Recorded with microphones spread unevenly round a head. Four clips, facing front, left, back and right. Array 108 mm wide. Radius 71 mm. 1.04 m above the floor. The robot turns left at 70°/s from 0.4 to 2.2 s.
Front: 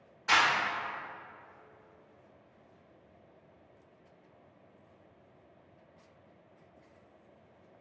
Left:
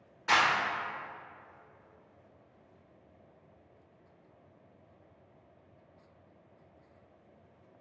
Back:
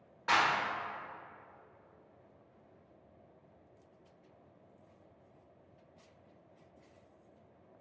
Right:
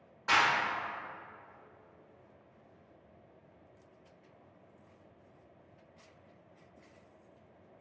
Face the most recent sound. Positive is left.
turn(degrees=60)